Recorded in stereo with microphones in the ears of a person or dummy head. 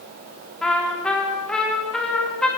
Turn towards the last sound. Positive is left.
turn(degrees=5)  # may be behind; listen again after turning